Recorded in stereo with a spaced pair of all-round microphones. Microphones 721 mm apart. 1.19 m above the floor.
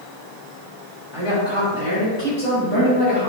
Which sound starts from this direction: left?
A woman speaking, at 1.1 s.